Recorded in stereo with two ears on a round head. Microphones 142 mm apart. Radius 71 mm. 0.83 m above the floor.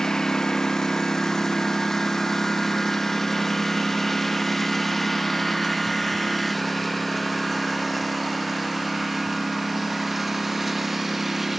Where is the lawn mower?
5° left (ahead or behind); by 11.6 s centre (ahead or behind).